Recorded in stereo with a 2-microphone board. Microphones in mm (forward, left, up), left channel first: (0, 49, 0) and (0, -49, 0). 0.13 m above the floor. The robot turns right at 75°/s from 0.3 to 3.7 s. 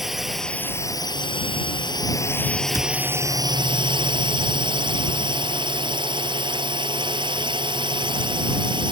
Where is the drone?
Straight ahead; by 8.9 s 105° right.